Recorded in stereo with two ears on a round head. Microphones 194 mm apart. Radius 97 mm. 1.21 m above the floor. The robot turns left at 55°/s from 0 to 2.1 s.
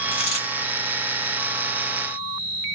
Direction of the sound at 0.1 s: 60° left (ahead or behind).